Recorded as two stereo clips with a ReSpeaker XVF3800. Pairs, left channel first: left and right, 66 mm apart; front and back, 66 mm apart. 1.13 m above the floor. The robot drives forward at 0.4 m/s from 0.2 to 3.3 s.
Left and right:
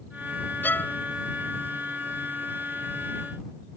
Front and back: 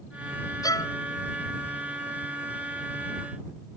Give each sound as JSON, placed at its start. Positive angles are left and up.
{"t": 0.6, "sound": "a violin", "azimuth_deg": 25}